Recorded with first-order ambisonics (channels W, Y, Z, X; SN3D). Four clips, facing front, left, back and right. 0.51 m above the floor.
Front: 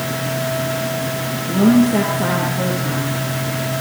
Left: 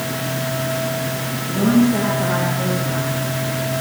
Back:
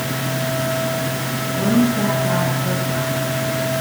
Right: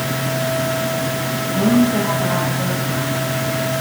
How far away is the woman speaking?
About 9 m.